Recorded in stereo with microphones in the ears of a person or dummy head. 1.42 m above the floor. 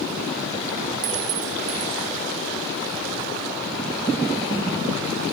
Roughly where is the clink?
Right.